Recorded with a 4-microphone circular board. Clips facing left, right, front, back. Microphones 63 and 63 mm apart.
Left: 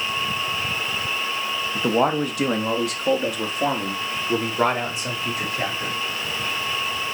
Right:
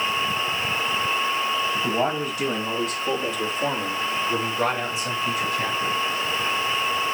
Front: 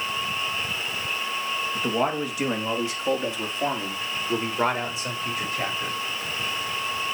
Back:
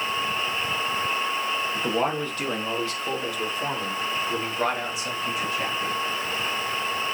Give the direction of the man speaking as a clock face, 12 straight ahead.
9 o'clock.